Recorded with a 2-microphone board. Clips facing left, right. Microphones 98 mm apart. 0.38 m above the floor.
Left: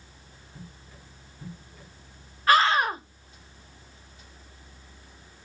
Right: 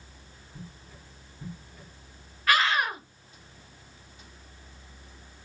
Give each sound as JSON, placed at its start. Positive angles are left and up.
{"t": 2.5, "sound": "a scream", "side_deg": 35, "distance_m": 1.1}